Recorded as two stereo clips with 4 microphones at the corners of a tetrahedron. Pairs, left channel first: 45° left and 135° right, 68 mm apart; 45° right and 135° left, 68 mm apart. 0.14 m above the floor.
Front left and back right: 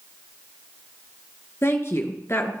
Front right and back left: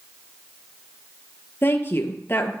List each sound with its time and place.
1.6 s a woman speaking: straight ahead, 2.0 m